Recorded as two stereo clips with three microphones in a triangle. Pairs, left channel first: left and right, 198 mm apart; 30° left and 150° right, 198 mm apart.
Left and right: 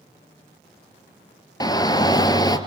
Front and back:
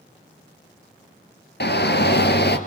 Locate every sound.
1.6 s a shout: 25° left, 2.5 m